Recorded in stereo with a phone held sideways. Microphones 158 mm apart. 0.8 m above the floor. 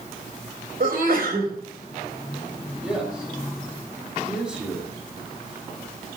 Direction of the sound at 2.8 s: 5° right (ahead or behind).